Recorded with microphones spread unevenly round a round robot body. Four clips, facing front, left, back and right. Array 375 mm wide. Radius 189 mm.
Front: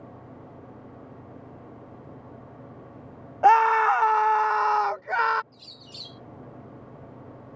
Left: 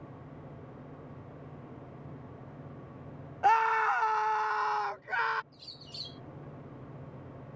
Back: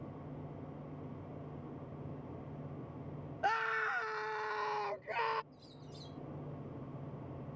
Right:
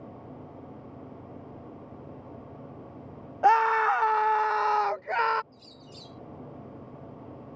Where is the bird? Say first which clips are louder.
Right 4 dB, front 3 dB; 20° right.